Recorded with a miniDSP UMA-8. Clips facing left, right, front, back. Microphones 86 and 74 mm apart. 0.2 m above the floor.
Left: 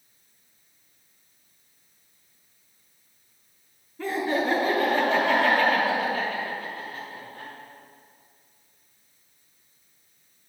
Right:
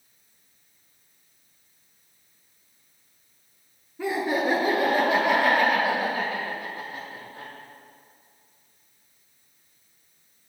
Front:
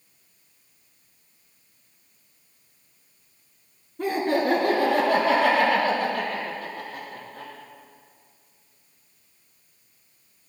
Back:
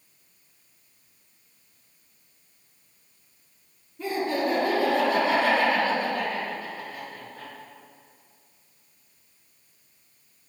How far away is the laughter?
About 2 m.